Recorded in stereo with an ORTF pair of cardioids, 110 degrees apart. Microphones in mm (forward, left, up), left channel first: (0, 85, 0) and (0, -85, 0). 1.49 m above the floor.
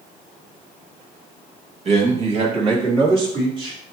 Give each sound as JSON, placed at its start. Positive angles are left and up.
{"t": 1.9, "sound": "a man speaking", "azimuth_deg": -40, "distance_m": 2.5}